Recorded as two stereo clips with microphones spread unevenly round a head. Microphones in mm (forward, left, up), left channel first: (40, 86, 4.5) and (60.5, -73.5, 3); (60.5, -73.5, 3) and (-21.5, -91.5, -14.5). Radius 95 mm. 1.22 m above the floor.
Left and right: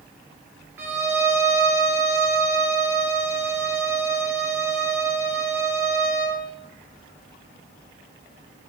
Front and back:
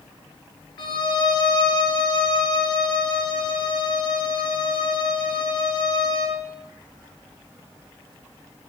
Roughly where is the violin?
Ahead.